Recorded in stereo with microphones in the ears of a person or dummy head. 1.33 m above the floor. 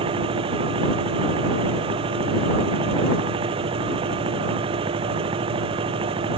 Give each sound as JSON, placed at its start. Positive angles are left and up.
{"t": 0.0, "sound": "a machine running", "side_deg": -30}